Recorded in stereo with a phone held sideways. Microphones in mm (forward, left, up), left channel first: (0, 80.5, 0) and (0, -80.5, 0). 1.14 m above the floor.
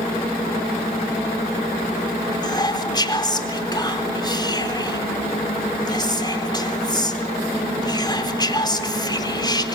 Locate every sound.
2.4 s whispering: 25° left (ahead or behind), 3.5 m